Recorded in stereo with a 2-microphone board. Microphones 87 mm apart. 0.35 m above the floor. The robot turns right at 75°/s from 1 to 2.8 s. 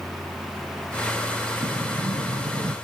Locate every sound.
1.6 s a sliding door: 130° right, 0.7 m; by 2.7 s 45° right, 0.7 m